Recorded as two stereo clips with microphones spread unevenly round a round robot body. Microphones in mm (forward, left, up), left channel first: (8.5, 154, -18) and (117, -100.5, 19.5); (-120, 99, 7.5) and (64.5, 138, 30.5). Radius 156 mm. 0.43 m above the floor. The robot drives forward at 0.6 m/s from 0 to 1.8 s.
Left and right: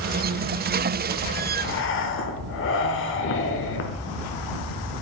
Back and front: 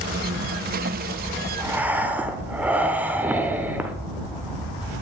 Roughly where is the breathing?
Left.